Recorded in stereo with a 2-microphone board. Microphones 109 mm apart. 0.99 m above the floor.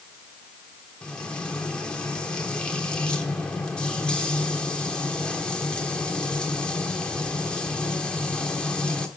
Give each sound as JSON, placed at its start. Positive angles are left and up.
{"t": 1.0, "sound": "frying", "side_deg": 10, "distance_m": 1.3}